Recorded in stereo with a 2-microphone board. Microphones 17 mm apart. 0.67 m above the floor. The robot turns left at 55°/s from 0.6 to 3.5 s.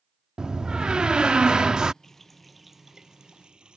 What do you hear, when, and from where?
0.4 s a door slam: 60° right; by 1.9 s 130° right
2.0 s a running tap: 20° left; by 3.8 s 60° right